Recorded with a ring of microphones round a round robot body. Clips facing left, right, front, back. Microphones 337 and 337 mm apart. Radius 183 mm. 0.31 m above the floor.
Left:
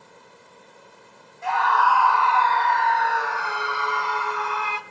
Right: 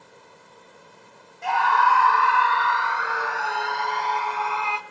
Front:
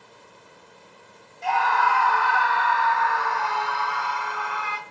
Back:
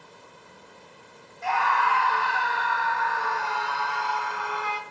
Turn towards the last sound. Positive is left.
turn(degrees=25)